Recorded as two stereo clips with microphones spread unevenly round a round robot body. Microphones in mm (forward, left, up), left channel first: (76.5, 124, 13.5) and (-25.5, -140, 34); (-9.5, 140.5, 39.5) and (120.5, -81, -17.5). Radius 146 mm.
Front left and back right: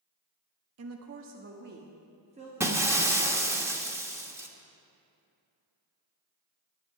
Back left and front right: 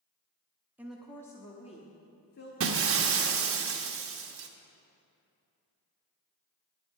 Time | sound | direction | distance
0.8 | a woman speaking | 130° right | 1.0 m
2.6 | breaking glass | 30° right | 1.2 m